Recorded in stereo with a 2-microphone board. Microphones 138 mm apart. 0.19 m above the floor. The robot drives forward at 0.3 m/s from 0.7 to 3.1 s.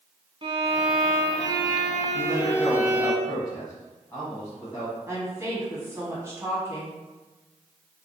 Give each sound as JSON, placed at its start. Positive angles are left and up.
{"t": 0.4, "sound": "a violin", "side_deg": -40, "distance_m": 0.8}
{"t": 2.1, "sound": "a man speaking", "side_deg": 25, "distance_m": 1.1}
{"t": 5.1, "sound": "a woman speaking", "side_deg": -20, "distance_m": 1.2}